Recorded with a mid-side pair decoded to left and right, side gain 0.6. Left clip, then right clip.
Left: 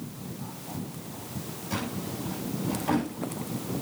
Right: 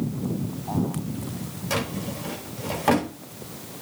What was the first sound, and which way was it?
A drawer, 65° right.